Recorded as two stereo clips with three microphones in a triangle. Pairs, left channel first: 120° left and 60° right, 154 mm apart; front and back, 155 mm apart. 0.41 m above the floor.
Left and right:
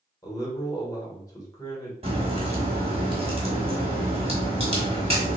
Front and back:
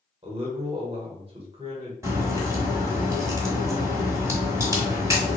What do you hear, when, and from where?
0.2 s a man speaking: 170° left, 1.2 m
2.0 s a crack: 110° right, 1.3 m